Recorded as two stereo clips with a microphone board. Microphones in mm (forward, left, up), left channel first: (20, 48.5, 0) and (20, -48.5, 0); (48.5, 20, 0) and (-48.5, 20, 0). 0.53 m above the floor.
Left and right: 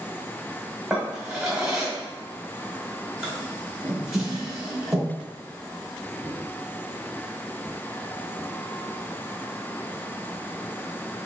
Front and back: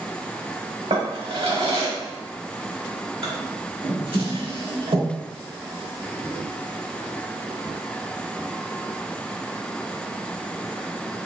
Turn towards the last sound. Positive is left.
turn(degrees=-175)